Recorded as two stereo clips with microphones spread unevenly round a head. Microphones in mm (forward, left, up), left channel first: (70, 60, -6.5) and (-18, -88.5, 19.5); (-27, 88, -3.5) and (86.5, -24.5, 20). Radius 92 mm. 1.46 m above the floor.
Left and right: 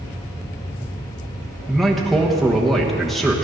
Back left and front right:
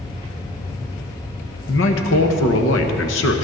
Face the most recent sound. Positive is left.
turn(degrees=150)